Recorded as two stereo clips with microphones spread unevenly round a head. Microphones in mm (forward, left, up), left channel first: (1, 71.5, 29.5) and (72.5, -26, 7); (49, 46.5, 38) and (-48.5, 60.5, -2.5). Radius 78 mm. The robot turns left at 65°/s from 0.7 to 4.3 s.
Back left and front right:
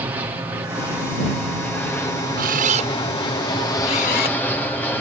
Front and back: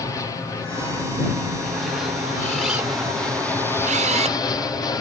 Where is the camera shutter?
80° right; by 4.4 s 155° left.